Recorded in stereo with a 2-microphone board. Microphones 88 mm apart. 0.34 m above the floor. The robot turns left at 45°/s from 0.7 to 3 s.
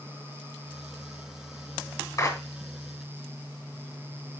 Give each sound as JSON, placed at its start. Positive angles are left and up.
{"t": 2.2, "sound": "a clap", "side_deg": 40, "distance_m": 3.0}